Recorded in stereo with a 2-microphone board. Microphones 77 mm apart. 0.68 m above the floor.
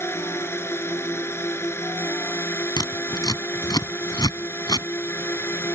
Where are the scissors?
65° left (ahead or behind).